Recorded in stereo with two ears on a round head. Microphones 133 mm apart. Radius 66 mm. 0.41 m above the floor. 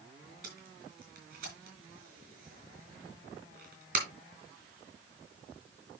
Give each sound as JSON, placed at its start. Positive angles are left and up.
{"t": 0.4, "sound": "tape being pulled", "side_deg": -60, "distance_m": 5.0}